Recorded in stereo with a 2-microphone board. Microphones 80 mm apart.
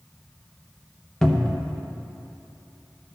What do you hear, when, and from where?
1.2 s a cupboard door: 5° left (ahead or behind), 0.7 m